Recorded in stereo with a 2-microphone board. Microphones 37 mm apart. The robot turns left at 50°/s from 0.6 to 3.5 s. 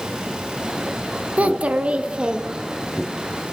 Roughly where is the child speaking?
Right.